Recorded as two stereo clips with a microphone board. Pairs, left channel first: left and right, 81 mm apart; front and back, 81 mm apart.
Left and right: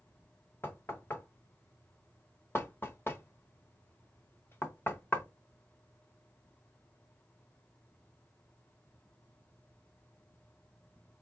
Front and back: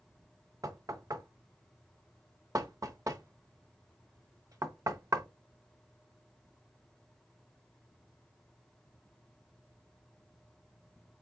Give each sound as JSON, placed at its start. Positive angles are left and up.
{"t": 0.6, "sound": "knocking", "azimuth_deg": 145, "distance_m": 0.8}